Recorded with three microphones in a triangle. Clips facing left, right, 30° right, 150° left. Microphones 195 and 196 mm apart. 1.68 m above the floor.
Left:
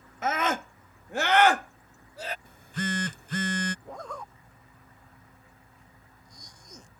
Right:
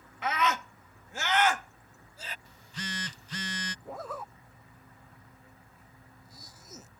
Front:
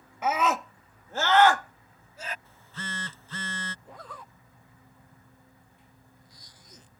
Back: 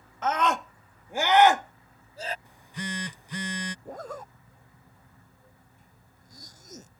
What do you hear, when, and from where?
0.2 s a scream: 50° left; by 2.4 s 100° left
2.5 s a phone buzzing: 80° left
3.9 s a zipper: 175° right